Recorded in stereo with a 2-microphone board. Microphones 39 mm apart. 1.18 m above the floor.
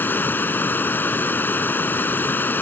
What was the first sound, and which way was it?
Running water, 60° left (ahead or behind).